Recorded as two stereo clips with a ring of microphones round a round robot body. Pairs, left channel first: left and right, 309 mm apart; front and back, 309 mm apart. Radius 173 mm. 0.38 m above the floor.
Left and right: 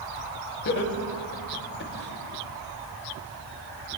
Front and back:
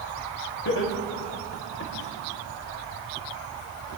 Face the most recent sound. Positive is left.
turn(degrees=40)